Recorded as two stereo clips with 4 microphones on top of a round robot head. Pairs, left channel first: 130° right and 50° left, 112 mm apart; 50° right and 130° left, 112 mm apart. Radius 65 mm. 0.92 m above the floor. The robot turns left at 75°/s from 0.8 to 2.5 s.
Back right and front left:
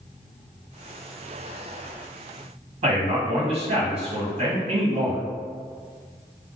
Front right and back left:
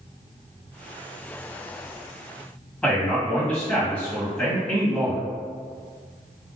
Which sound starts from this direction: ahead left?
A man speaking, at 2.8 s.